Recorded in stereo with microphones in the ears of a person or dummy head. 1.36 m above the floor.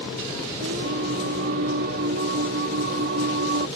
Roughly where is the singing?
Right.